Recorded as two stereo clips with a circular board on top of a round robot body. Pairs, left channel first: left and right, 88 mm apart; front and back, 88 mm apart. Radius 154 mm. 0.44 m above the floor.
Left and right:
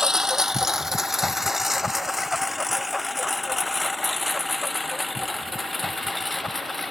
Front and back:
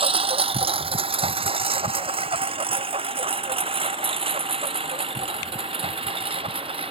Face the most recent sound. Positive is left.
turn(degrees=180)